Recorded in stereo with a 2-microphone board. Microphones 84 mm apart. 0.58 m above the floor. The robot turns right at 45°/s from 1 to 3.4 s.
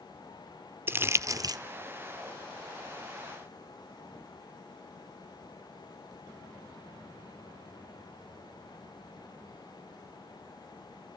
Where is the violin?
I don't hear a violin.